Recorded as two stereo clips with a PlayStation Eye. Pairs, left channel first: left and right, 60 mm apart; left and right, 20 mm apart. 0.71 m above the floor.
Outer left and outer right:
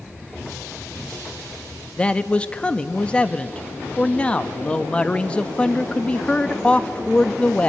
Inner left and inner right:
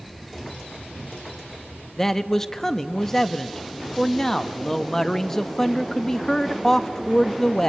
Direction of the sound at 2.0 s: 20° left (ahead or behind).